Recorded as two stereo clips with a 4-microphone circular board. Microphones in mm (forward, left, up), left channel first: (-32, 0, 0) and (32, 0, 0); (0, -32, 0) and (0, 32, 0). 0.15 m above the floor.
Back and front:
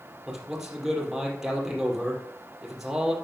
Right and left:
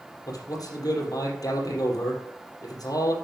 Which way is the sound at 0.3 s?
85° right.